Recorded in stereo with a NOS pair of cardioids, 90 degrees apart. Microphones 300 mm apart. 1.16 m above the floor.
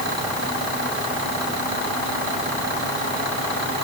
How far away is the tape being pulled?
No tape being pulled in this recording.